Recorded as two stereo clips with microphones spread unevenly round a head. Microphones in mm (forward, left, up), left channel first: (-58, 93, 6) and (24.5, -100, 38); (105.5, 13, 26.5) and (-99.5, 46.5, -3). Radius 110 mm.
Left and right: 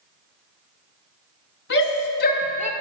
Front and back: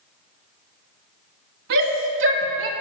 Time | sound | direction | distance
1.7 | a shout | 145° left | 2.0 m